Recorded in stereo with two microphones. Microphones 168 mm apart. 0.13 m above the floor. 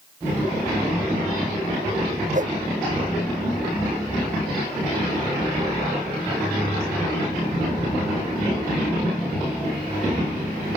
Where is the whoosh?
50° right (ahead or behind).